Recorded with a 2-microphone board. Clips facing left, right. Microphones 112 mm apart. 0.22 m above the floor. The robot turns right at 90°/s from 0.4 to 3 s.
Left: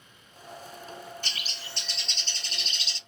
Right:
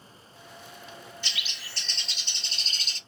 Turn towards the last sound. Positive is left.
turn(degrees=-95)